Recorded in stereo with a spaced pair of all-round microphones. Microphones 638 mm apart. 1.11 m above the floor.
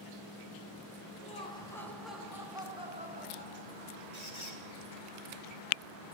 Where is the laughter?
10° left (ahead or behind), 5 m; by 4.0 s 20° right (ahead or behind), 6.5 m.